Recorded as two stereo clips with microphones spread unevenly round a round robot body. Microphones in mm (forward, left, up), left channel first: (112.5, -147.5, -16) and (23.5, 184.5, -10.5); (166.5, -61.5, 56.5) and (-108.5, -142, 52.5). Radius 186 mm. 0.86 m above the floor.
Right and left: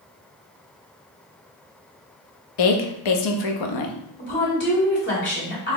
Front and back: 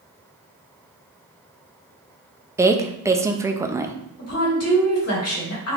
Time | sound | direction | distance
2.6 | a woman speaking | 85° right | 0.6 m
4.2 | a woman speaking | 15° right | 2 m